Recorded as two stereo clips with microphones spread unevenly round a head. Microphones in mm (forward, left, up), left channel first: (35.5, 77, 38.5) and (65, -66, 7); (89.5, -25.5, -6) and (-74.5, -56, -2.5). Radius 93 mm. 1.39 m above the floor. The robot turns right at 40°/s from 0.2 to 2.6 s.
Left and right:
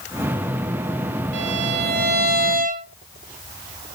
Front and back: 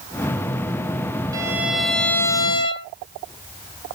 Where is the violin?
100° right, 1.7 m; by 2.9 s 50° right, 1.7 m.